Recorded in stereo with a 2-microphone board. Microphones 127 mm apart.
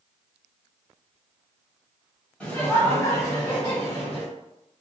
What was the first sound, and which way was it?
Laughter, 10° left (ahead or behind).